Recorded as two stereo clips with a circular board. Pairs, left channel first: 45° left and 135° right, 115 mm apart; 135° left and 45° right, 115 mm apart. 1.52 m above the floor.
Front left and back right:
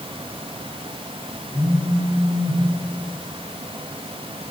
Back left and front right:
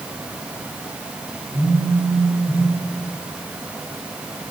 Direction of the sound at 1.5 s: 130° left.